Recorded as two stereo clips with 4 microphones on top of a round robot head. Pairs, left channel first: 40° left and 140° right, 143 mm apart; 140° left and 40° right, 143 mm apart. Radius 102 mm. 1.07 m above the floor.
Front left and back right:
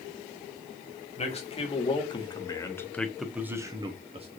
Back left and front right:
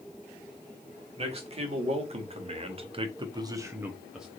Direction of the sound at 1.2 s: 5° left.